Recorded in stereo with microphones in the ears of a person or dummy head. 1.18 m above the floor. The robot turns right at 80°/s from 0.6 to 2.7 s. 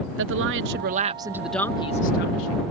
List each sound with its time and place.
0.2 s a woman speaking: 70° right; by 2.6 s 90° left